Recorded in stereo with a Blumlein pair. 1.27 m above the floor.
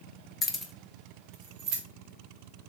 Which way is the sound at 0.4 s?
20° left.